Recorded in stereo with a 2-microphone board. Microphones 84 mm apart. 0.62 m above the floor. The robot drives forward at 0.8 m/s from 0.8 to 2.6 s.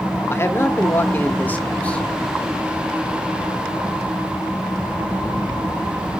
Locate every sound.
0.3 s a man speaking: 35° left (ahead or behind), 0.9 m; by 2.1 s 15° left (ahead or behind), 1.7 m